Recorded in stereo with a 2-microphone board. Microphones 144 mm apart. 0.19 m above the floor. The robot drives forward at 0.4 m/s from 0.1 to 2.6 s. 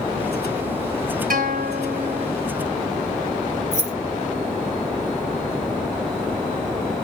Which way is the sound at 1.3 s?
75° right (ahead or behind).